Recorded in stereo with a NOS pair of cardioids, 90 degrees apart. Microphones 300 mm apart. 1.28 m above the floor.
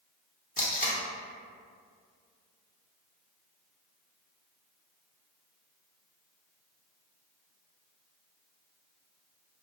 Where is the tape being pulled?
30° left, 0.9 m.